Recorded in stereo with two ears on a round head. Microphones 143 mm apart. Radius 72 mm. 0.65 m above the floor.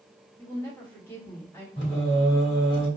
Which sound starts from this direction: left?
Singing, at 1.8 s.